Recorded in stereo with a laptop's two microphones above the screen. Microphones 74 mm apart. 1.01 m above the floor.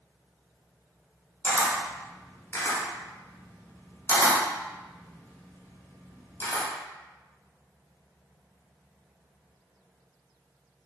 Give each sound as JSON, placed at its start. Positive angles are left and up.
{"t": 1.4, "sound": "a camera shutter", "side_deg": 30, "distance_m": 1.1}